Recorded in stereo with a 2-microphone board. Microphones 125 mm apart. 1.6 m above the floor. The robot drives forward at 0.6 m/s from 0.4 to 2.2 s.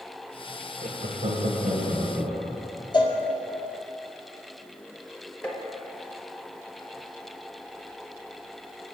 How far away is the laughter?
About 0.9 m.